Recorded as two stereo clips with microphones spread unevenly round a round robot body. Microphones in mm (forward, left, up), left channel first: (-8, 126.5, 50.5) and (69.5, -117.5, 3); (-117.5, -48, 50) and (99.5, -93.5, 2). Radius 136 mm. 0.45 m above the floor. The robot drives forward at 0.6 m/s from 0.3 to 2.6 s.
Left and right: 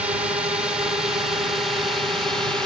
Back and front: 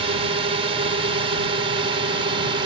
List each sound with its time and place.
0.0 s a drone: 5° right; by 2.7 s 5° left